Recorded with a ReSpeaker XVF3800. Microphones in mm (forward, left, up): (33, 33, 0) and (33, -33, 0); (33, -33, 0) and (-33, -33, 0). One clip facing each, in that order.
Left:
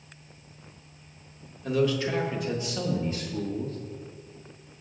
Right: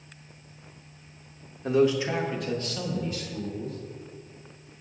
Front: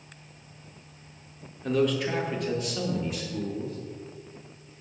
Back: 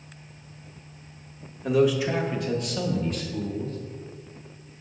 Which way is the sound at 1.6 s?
105° right.